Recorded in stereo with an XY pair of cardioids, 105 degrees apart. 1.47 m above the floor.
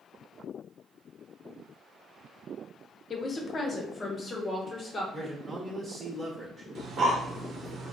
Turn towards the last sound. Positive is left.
turn(degrees=-55)